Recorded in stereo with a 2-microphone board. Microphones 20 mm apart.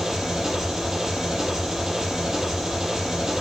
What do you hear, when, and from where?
0.0 s an engine running: 40° right (ahead or behind), 8.5 m